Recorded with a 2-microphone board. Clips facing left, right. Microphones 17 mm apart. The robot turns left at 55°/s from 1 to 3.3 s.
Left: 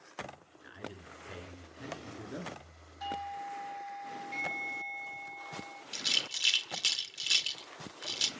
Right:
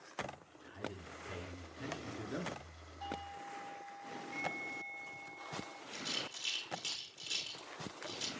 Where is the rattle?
60° left (ahead or behind), 0.8 m.